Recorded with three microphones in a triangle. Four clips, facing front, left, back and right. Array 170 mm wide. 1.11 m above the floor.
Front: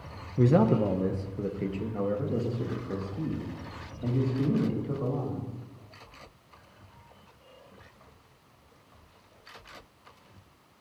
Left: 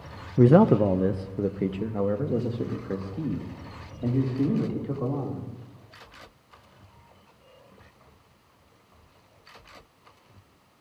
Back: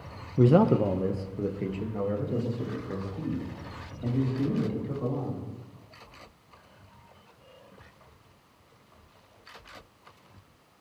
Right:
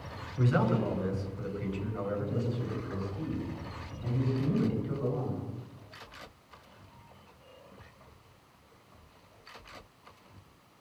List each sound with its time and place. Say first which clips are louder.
0.4 s a man speaking: left 11 dB, back 2 dB; 105° left, 0.5 m; by 5.5 s 85° left, 3 m